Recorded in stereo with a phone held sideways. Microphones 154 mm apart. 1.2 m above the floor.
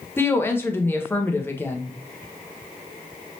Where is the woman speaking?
15° left (ahead or behind), 0.6 m.